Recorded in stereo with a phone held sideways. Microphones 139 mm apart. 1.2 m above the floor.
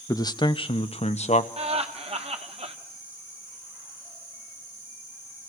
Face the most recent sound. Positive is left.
turn(degrees=-45)  # may be behind; listen again after turning